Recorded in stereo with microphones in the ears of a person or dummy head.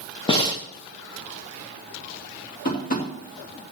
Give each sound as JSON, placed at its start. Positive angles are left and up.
{"t": 0.3, "sound": "breathing", "side_deg": 25, "distance_m": 1.0}
{"t": 2.6, "sound": "tapping", "side_deg": 50, "distance_m": 3.0}